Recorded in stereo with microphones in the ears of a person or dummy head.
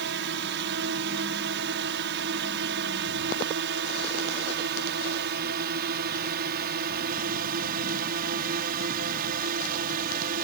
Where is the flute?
I don't hear a flute.